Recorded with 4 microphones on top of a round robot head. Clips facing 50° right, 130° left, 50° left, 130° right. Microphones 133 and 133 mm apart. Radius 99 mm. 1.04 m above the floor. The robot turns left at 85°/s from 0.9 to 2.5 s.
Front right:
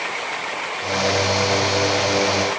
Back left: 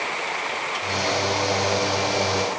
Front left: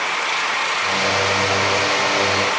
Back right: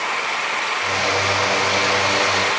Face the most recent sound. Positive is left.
No sound to turn to.